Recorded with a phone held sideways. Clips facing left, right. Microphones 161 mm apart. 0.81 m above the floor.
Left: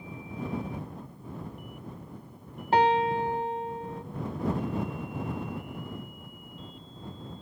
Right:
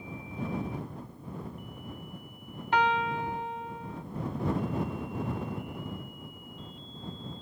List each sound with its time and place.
2.7 s a piano: 35° left (ahead or behind)